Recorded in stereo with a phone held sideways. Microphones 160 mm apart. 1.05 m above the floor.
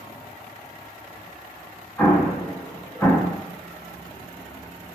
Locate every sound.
2.0 s an explosion: 15° left (ahead or behind), 0.5 m